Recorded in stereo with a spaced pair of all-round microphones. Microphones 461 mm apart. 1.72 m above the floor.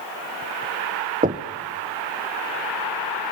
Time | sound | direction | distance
1.2 | knocking | 15° right (ahead or behind) | 1.0 m